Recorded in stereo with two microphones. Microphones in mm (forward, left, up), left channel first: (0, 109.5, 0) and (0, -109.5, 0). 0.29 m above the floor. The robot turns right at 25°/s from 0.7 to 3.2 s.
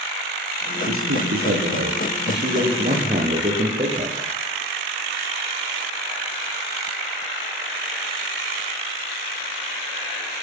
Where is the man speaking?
90° right, 8.5 m; by 4.2 s 30° right, 8.5 m.